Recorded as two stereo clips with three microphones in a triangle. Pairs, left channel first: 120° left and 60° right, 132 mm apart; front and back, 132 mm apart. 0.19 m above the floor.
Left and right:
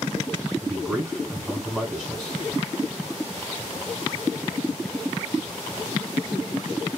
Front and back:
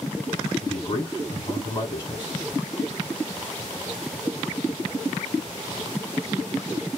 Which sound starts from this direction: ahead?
A man speaking, at 0.6 s.